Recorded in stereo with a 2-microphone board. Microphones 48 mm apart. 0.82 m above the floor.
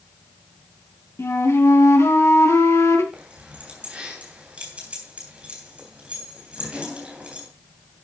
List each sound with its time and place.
1.2 s a flute: 75° left (ahead or behind), 2.5 m
3.1 s keys jangling: 25° right (ahead or behind), 3 m